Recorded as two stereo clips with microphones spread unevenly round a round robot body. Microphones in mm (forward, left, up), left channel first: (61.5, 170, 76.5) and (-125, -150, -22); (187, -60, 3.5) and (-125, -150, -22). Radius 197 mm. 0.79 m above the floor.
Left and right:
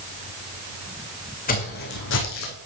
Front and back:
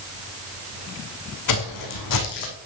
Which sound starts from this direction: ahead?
Footsteps, at 1.5 s.